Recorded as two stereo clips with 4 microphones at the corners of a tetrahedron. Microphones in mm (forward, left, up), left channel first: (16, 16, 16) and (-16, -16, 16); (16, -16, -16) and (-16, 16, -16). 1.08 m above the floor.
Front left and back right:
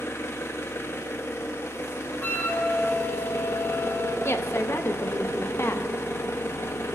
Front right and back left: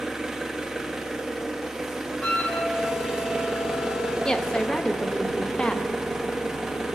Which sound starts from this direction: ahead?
A flute, at 2.2 s.